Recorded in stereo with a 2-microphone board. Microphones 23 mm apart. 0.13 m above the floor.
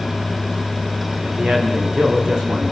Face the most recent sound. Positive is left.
turn(degrees=-40)  # may be behind; listen again after turning